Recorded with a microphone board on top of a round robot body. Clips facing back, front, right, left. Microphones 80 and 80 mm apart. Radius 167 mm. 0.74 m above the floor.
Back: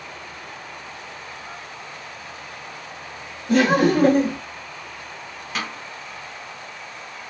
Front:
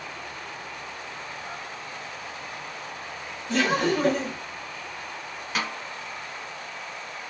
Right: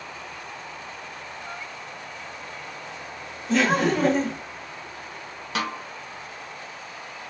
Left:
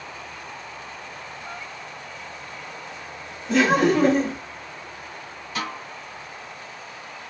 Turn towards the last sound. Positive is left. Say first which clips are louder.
# even, right 2 dB
turn(degrees=-90)